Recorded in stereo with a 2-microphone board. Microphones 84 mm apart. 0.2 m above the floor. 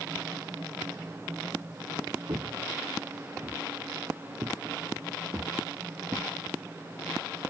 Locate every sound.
2.3 s footsteps: 55° right (ahead or behind); by 6.3 s 35° right (ahead or behind)